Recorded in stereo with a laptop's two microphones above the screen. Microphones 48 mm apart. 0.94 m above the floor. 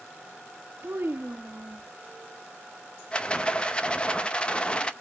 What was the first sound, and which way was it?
A child speaking, 55° right (ahead or behind).